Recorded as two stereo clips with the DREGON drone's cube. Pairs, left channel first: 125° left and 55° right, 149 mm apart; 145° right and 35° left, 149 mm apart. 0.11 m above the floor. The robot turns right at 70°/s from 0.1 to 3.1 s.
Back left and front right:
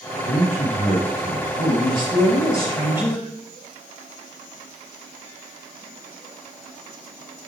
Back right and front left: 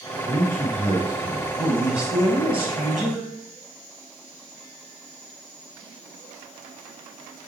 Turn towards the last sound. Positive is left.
turn(degrees=30)